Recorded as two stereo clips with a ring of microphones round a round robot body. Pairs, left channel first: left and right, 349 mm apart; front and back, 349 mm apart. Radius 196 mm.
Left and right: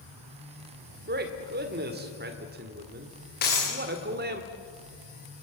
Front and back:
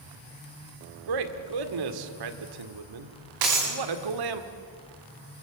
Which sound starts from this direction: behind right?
A man speaking, at 1.1 s.